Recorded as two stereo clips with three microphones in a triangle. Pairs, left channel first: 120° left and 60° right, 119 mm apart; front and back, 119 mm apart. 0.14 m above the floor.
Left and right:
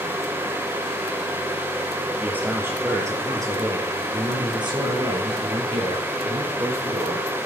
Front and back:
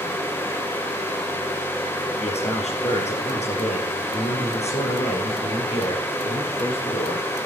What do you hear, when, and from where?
2.2 s a man speaking: 15° left, 3 m; by 7.3 s 35° right, 4 m